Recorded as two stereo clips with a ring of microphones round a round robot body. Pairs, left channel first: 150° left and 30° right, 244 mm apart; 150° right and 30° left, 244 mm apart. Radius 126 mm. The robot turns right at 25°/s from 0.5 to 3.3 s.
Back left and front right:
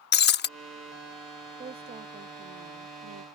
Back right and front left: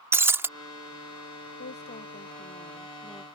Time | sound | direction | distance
0.1 | breaking glass | 110° left | ?
1.6 | a woman speaking | 100° right | ?